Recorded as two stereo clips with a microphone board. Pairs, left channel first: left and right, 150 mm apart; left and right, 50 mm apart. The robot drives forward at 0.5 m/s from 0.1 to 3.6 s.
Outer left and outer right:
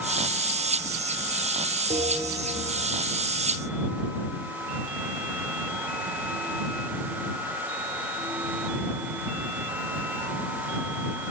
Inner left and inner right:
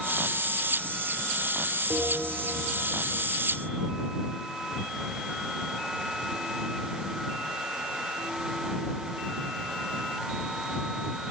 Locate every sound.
1.9 s a bell: 55° right (ahead or behind), 2 m; by 2.7 s 60° right (ahead or behind), 2 m